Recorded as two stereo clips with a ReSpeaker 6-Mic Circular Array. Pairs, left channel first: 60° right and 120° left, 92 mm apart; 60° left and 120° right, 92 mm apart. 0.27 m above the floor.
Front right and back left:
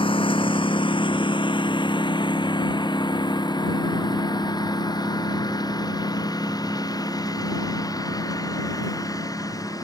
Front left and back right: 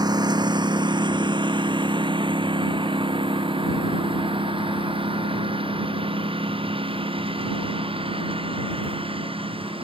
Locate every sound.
0.0 s a lawn mower: 80° right; by 9.8 s 110° right